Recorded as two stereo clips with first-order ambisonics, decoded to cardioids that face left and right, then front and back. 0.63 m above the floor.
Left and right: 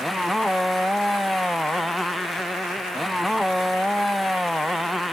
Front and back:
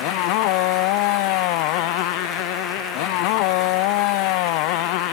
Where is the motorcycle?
Straight ahead.